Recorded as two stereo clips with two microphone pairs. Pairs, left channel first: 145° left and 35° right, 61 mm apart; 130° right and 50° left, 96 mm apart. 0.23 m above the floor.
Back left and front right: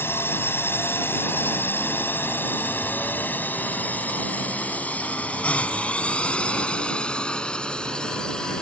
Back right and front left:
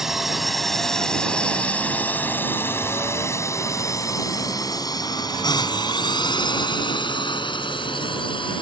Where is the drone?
135° left; by 8.6 s 140° right.